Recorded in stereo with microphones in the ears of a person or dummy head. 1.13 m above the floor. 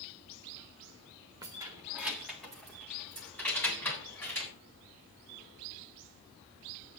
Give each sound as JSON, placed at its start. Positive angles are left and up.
{"t": 1.4, "sound": "keys jangling", "side_deg": -25, "distance_m": 1.3}